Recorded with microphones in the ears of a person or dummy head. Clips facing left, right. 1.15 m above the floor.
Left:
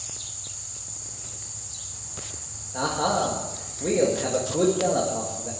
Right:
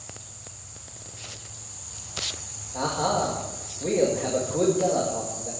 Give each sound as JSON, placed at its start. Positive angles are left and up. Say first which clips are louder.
{"t": 2.7, "sound": "a man speaking", "louder": "left 1 dB", "side_deg": 5, "distance_m": 2.0}